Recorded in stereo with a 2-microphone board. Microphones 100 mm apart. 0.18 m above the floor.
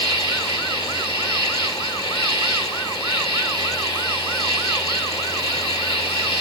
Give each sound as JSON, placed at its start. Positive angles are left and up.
{"t": 0.0, "sound": "an insect", "side_deg": -50, "distance_m": 5.5}